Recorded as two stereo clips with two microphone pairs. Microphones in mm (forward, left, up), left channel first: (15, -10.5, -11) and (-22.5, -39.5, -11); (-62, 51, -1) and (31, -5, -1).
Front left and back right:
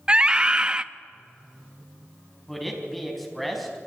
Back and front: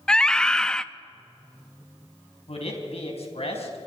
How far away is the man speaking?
About 4.5 m.